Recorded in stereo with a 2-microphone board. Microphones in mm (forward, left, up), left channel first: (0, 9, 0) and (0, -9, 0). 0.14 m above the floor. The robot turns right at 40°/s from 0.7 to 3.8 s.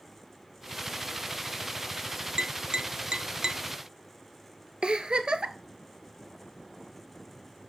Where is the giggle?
65° right (ahead or behind), 0.5 m.